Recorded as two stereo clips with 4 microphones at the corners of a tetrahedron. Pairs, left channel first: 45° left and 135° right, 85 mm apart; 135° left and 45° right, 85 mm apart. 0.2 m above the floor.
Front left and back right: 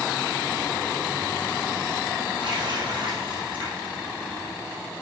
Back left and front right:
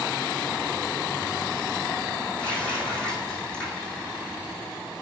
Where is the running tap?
145° right, 5 m.